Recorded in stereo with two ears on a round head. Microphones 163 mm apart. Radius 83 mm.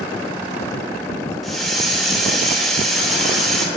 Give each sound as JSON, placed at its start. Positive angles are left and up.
{"t": 1.4, "sound": "a hiss", "side_deg": 0, "distance_m": 0.8}